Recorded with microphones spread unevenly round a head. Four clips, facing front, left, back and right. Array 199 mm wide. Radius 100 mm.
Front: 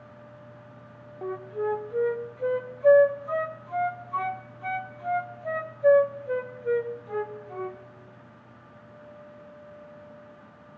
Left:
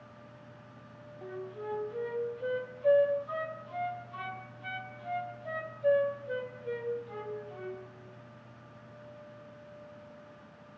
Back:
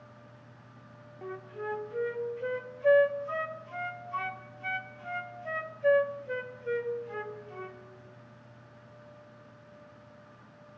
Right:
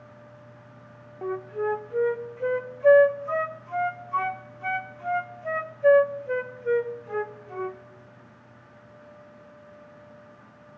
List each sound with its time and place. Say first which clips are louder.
1.2 s a flute: right 12 dB, front 9 dB; 50° right, 0.6 m